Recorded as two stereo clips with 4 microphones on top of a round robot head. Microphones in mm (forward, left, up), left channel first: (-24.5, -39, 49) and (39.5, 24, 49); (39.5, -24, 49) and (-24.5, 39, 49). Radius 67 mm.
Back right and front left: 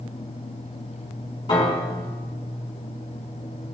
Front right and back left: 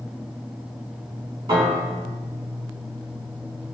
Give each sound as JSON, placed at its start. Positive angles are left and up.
{"t": 1.5, "sound": "a piano", "azimuth_deg": 180, "distance_m": 4.5}